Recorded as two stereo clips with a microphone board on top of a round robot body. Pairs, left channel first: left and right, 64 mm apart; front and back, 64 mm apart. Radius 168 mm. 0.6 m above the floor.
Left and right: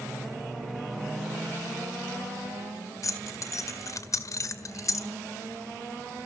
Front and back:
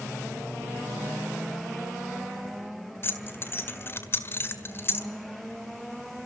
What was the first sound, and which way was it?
Keys jangling, 55° left.